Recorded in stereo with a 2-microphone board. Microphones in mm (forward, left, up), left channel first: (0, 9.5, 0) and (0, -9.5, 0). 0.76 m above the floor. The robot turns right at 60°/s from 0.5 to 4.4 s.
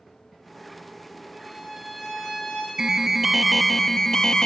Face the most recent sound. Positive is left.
turn(degrees=50)